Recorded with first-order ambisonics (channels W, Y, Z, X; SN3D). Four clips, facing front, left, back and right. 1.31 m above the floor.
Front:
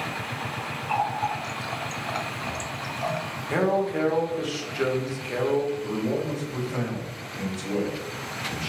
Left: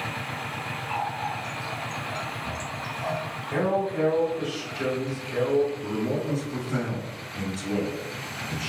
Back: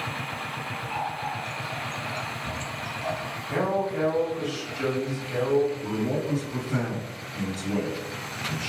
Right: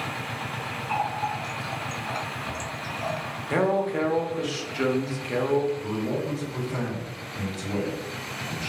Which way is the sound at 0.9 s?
15° right.